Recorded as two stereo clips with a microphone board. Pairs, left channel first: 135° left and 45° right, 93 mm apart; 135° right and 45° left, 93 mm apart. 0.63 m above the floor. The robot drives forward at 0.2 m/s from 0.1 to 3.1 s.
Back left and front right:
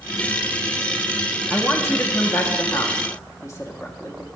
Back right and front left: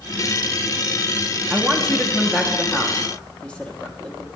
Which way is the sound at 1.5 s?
140° left.